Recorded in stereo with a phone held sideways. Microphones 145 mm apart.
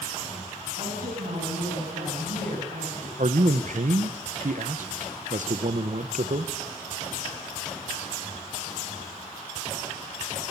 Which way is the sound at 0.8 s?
85° right.